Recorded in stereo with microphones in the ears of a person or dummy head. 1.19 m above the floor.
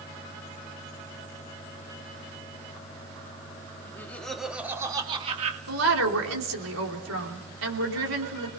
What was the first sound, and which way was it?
Laughter, 15° left (ahead or behind).